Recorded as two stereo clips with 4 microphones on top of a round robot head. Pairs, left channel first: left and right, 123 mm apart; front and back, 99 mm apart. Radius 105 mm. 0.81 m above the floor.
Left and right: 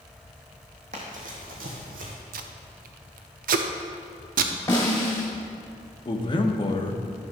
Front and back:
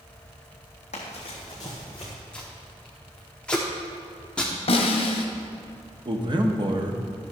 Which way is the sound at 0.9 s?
40° right.